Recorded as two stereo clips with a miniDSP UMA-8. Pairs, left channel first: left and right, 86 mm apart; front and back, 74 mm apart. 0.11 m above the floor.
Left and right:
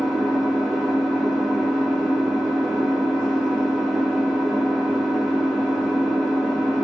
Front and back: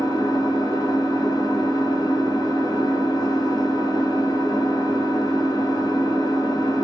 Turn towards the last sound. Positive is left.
turn(degrees=-5)